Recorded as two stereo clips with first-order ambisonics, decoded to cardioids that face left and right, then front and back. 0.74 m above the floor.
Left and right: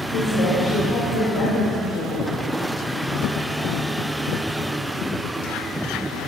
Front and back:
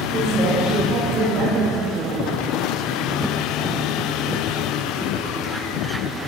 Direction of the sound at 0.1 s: 120° left.